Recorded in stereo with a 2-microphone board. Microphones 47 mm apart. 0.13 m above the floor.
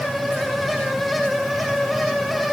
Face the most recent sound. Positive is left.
No sound to turn to.